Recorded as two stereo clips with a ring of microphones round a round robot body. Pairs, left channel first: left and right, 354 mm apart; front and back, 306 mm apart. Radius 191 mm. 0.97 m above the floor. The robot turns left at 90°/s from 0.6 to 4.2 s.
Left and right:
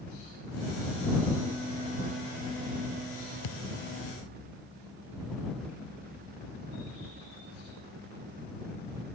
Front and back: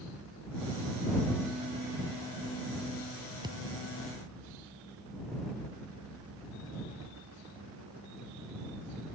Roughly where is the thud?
Left.